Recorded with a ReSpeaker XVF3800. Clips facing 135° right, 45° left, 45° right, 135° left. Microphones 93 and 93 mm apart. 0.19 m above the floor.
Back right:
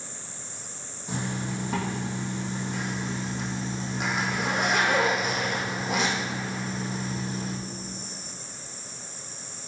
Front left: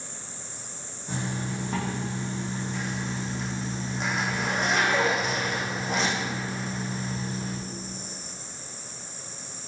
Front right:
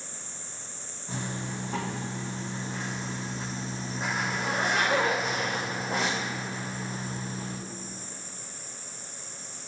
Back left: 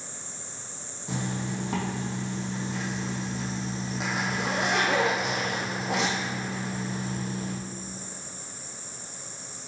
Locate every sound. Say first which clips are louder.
1.1 s a zipper: even, back left 3 dB; 145° left, 2.5 m